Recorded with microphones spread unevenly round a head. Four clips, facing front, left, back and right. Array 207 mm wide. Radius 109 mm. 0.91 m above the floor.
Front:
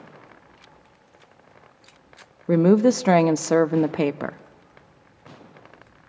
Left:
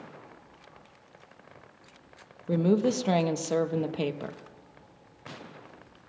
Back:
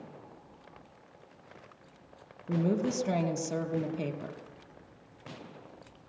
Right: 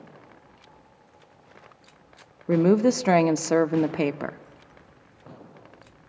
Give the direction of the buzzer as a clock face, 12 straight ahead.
I don't hear a buzzer.